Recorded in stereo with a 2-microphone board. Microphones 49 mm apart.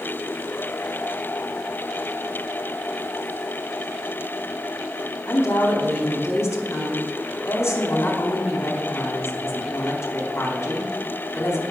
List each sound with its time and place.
5.3 s a woman speaking: 65° left (ahead or behind), 4.5 m